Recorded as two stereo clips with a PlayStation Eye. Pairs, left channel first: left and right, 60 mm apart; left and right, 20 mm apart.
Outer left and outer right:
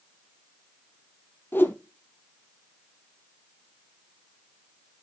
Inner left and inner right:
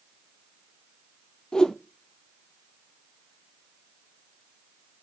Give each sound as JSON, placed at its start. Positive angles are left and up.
{"t": 1.5, "sound": "a whoosh", "side_deg": 35, "distance_m": 0.8}